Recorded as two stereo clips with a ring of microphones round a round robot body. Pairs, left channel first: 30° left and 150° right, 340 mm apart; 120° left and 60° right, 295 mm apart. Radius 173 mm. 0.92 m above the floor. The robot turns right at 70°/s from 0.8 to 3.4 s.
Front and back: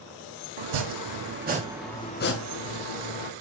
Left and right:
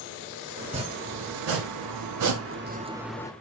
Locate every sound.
0.6 s chopping: 130° right, 1.0 m; by 3.3 s 45° left, 1.0 m